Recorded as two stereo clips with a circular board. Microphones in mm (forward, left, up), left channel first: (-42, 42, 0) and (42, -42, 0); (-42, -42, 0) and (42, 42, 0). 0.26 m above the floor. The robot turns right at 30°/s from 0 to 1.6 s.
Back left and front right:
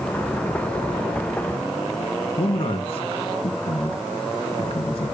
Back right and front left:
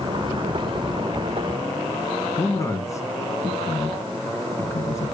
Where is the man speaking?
165° left, 3 m.